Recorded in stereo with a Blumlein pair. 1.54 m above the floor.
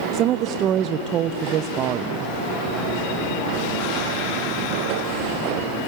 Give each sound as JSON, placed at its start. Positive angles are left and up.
{"t": 0.1, "sound": "a woman speaking", "azimuth_deg": -30, "distance_m": 0.6}